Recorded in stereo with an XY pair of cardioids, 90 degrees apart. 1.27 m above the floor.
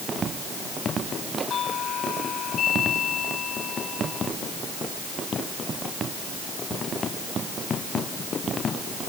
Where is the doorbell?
65° left.